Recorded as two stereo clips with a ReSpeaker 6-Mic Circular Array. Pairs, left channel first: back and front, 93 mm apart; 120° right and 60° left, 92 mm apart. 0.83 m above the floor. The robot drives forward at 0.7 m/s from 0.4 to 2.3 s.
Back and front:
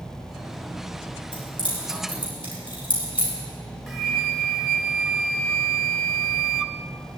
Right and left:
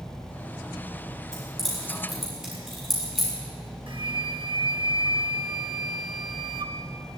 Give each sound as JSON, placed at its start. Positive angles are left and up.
{"t": 1.3, "sound": "keys jangling", "azimuth_deg": 145, "distance_m": 6.0}
{"t": 3.9, "sound": "a flute", "azimuth_deg": 90, "distance_m": 0.8}